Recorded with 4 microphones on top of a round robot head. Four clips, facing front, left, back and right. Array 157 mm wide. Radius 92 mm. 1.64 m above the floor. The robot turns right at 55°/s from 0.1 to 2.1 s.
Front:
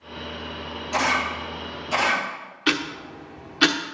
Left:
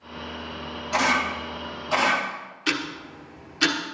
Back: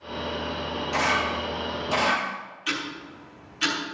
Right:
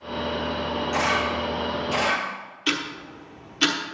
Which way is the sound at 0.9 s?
80° left.